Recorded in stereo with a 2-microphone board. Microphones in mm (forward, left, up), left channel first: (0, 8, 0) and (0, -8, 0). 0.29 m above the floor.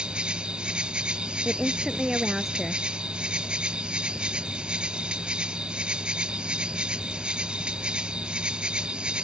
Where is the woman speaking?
25° right (ahead or behind).